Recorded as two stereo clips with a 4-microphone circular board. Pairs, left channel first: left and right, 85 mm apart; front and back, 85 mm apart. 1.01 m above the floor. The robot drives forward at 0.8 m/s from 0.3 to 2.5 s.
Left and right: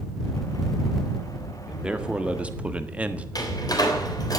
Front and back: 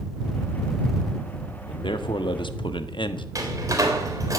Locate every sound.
1.7 s a man speaking: 10° right, 2.0 m; by 3.2 s 15° right, 1.3 m
3.4 s a door slam: 130° left, 3.5 m